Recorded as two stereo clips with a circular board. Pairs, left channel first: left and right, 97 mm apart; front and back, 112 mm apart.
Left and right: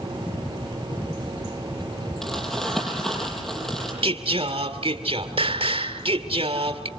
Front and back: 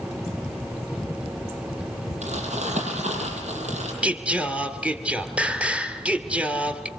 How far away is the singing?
About 2 m.